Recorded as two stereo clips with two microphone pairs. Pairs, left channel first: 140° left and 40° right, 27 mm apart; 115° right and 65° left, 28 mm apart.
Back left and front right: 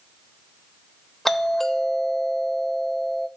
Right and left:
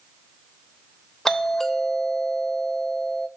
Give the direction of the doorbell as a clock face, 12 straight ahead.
5 o'clock.